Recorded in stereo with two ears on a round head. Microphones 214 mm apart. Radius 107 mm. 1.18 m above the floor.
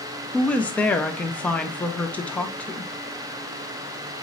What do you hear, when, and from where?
0.3 s a woman speaking: 5° left (ahead or behind), 0.5 m